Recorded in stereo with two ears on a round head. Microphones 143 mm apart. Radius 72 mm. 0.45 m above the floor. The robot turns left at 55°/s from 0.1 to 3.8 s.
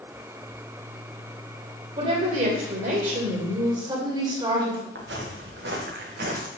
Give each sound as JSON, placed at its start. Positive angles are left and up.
{"t": 2.0, "sound": "a woman speaking", "azimuth_deg": -45, "distance_m": 1.7}
{"t": 5.0, "sound": "footsteps", "side_deg": -85, "distance_m": 3.0}